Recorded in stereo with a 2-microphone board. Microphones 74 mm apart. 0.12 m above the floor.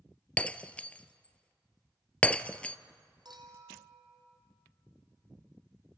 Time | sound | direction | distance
0.4 | breaking glass | 20° left (ahead or behind) | 0.5 m
3.2 | a clink | 70° right (ahead or behind) | 2.5 m